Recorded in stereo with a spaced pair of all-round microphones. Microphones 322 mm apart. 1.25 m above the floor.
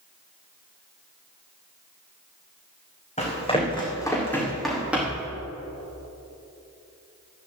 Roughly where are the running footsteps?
Left.